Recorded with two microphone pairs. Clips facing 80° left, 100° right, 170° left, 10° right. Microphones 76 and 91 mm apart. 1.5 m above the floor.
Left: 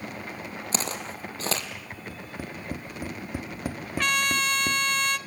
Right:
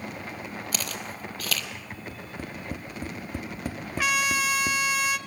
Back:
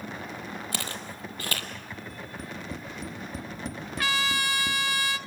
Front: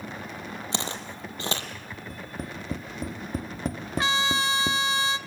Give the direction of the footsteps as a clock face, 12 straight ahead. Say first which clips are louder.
Left 3 dB, front 3 dB; 11 o'clock.